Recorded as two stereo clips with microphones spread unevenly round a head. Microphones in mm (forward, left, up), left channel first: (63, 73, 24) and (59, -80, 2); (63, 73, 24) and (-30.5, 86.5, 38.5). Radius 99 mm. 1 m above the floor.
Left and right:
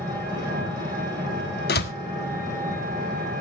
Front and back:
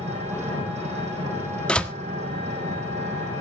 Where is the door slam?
70° left, 1.4 m.